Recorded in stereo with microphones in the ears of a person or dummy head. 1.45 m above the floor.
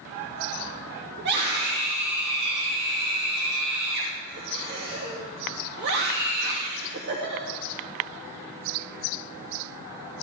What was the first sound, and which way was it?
A scream, 60° right (ahead or behind).